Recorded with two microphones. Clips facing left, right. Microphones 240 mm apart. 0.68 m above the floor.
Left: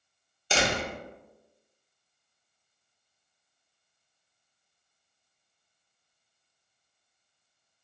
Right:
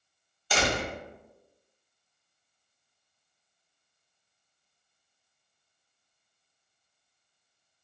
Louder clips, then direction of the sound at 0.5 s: Even; 25° left (ahead or behind).